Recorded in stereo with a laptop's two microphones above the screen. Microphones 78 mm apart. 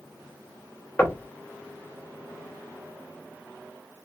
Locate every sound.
1.0 s knocking: 25° left (ahead or behind), 0.8 m